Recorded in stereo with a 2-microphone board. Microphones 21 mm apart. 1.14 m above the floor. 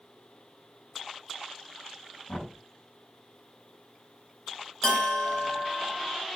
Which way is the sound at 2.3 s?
60° left (ahead or behind).